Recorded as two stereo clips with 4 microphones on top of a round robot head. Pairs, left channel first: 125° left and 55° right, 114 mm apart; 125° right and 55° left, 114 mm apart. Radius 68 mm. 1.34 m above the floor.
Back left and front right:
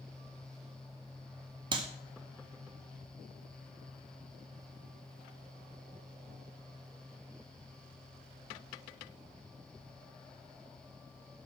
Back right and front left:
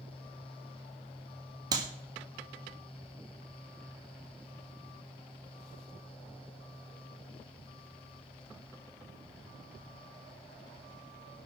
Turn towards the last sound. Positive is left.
turn(degrees=-5)